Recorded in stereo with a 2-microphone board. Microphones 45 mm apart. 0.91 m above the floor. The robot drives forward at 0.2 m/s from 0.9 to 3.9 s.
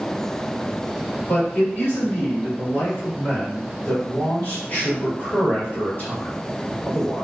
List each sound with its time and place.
1.3 s a man speaking: 60° left (ahead or behind), 1.8 m; by 7.2 s 50° left (ahead or behind), 2 m